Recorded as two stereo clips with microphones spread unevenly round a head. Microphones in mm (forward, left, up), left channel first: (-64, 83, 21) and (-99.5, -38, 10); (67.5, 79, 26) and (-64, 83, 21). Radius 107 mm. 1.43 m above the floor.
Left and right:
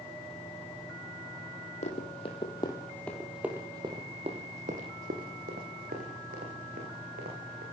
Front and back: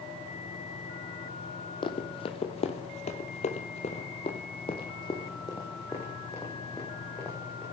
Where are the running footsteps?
40° left, 2.5 m; by 7.6 s 85° right, 6 m.